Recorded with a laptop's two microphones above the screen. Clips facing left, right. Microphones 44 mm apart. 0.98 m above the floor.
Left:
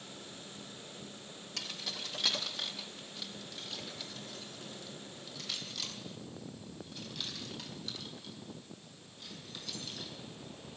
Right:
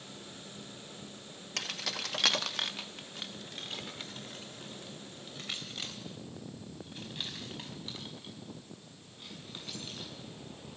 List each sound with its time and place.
1.6 s keys jangling: 60° right (ahead or behind), 0.7 m; by 10.1 s 25° right (ahead or behind), 7 m